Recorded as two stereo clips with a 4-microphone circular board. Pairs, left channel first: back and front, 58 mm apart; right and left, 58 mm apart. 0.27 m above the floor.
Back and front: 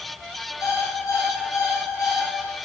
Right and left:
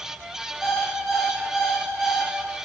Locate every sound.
0.6 s an alarm clock: 170° left, 2.5 m